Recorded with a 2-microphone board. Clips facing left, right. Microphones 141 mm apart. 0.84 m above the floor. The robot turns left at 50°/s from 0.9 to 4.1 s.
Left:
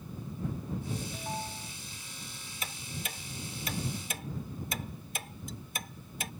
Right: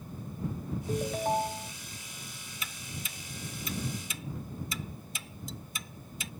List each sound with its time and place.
0.9 s a ringtone: 100° right; by 1.7 s 145° right
2.6 s ticking: 45° left (ahead or behind); by 6.3 s 55° left (ahead or behind)